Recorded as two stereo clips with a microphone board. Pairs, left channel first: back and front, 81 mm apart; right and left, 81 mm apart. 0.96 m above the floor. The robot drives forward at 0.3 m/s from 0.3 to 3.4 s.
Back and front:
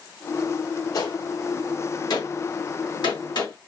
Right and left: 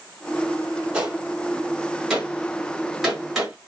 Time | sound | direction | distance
0.9 | a gunshot | 165° left | 0.9 m